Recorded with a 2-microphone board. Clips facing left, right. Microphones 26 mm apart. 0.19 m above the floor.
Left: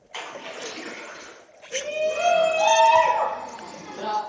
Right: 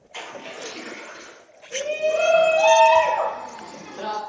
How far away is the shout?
About 1.5 m.